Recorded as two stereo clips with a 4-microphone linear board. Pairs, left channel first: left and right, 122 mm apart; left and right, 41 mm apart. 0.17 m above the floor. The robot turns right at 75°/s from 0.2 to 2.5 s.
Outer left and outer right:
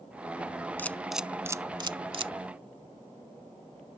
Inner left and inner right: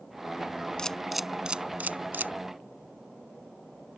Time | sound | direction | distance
0.8 | a camera shutter | 15° left (ahead or behind) | ?